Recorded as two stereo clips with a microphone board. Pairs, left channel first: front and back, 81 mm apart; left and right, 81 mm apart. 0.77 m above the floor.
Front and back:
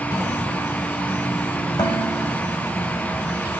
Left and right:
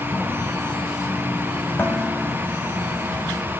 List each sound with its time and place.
1.8 s dishes clattering: 25° left, 3.5 m